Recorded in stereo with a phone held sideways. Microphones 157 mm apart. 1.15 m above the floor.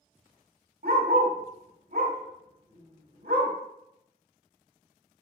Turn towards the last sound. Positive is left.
turn(degrees=-75)  # may be behind; listen again after turning